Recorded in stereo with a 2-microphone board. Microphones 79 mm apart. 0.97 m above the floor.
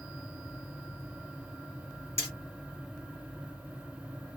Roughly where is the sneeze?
No sneeze in this recording.